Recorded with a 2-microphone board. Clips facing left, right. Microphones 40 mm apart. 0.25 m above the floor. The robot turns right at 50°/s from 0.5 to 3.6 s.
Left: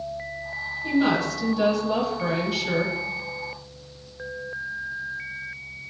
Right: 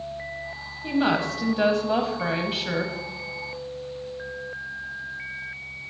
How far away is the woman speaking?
About 1.3 m.